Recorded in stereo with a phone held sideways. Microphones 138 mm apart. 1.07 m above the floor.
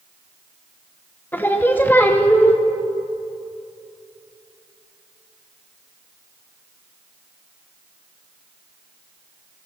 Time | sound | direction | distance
1.3 | singing | 15° left (ahead or behind) | 0.7 m